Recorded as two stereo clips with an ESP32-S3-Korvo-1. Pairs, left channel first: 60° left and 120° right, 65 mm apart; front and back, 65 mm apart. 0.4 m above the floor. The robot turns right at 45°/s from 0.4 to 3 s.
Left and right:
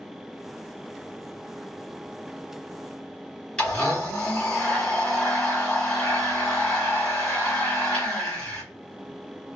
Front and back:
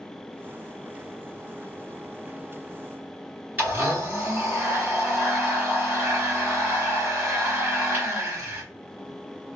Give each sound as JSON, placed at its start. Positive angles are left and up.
{"t": 3.6, "sound": "a blender", "azimuth_deg": 130, "distance_m": 1.9}